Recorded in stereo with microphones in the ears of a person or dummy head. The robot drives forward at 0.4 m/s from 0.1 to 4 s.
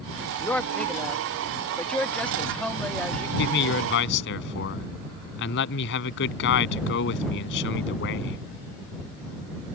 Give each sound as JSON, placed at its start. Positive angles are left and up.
{"t": 0.4, "sound": "a woman speaking", "side_deg": 10}
{"t": 3.4, "sound": "a man speaking", "side_deg": 65}